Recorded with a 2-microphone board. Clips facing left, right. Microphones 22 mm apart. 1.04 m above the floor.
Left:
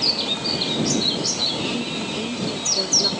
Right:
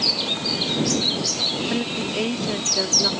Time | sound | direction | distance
1.7 | a woman speaking | 65° right (ahead or behind) | ?